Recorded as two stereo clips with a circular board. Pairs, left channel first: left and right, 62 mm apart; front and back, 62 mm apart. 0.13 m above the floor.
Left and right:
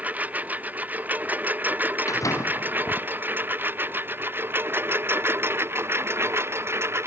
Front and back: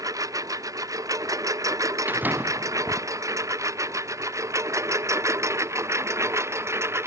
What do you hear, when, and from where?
0.0 s a lawn mower: 155° right; by 7.1 s 135° right
2.1 s a door slam: 120° left